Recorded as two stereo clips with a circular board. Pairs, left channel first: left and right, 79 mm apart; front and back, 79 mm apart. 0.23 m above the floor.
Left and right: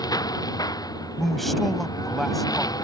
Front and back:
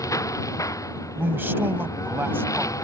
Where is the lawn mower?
50° left.